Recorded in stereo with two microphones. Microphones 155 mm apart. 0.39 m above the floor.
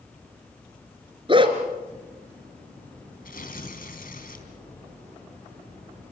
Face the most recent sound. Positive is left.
turn(degrees=65)  # may be behind; listen again after turning